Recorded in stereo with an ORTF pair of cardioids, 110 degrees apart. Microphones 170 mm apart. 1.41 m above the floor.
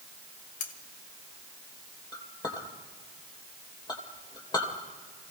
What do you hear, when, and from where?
0.6 s cutlery clinking: 50° left, 1.4 m
2.1 s a clink: 25° left, 3 m